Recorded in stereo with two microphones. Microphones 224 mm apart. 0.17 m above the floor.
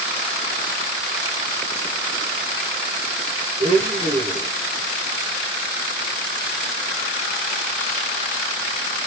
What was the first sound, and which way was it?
A blender, 35° right (ahead or behind).